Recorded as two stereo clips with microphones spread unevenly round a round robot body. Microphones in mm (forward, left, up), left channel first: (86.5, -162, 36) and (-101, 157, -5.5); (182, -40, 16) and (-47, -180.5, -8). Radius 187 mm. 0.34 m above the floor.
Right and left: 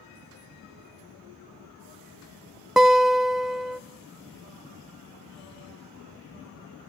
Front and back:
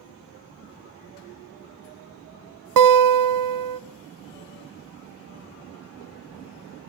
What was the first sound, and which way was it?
A guitar, 150° right.